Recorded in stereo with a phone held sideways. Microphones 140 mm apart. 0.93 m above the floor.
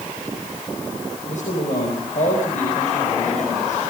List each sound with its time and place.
1.3 s a man speaking: 65° left (ahead or behind), 5 m